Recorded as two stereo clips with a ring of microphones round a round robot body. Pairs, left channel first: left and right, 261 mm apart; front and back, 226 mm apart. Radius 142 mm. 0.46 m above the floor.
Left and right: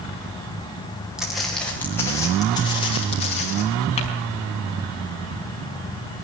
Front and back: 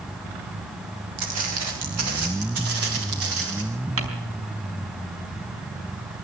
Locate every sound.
1.2 s footsteps: straight behind, 6 m; by 3.6 s 155° left, 8 m
4.0 s crumpling: 160° left, 4.5 m